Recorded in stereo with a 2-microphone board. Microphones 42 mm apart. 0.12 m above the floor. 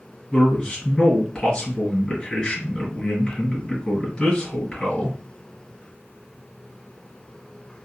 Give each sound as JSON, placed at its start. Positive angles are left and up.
{"t": 0.3, "sound": "a man speaking", "side_deg": 10, "distance_m": 1.9}